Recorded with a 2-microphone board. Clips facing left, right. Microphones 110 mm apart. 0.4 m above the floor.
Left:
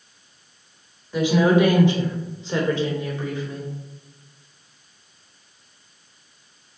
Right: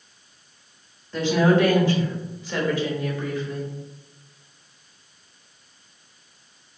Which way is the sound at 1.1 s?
10° left (ahead or behind).